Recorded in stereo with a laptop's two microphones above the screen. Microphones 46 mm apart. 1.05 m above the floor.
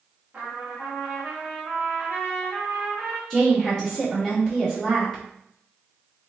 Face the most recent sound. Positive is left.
turn(degrees=15)  # may be behind; listen again after turning